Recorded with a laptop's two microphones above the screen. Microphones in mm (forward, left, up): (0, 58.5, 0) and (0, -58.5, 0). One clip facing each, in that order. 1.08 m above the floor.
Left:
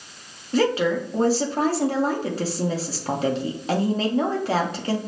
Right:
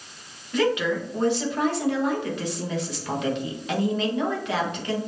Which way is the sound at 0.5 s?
35° left (ahead or behind).